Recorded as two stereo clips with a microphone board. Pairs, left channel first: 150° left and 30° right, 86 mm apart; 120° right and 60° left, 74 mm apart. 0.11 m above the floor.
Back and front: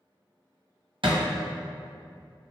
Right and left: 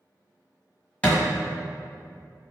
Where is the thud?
50° right, 1.3 m.